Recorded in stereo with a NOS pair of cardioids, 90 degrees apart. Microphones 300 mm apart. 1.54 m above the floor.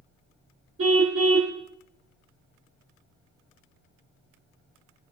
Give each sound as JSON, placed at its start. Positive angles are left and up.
{"t": 0.8, "sound": "a car horn", "azimuth_deg": -50, "distance_m": 2.5}